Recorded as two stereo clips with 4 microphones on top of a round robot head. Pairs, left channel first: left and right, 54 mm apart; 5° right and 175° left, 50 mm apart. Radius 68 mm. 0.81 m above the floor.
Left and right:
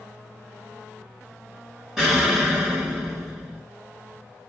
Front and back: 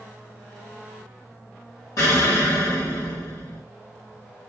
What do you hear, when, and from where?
2.0 s an explosion: 10° right, 1.8 m